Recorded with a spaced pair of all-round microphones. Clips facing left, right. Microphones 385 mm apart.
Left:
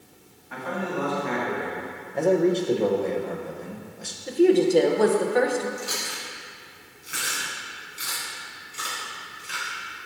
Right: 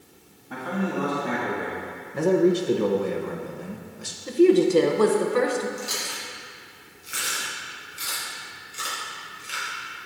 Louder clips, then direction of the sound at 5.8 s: Even; 70° left (ahead or behind).